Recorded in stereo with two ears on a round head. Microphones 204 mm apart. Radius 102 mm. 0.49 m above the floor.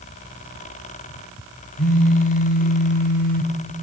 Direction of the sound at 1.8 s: 40° left (ahead or behind).